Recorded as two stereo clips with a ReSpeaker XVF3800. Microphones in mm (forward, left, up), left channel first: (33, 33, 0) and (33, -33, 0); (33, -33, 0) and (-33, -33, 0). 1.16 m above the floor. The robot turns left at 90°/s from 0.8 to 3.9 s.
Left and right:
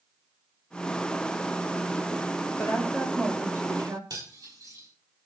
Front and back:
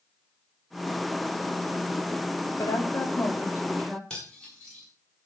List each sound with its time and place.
2.6 s a woman speaking: 40° left, 3.5 m; by 4.0 s 75° right, 3.5 m
4.1 s cutlery clinking: 80° right, 7 m